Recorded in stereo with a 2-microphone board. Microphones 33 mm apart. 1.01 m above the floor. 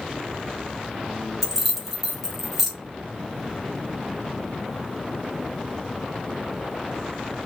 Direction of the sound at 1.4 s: 5° right (ahead or behind).